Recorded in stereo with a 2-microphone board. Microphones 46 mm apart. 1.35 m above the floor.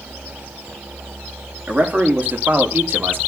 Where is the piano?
I don't hear a piano.